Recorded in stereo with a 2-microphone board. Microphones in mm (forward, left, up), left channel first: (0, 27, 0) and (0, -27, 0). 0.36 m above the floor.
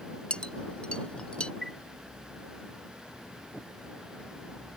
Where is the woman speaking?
No woman speaking in this recording.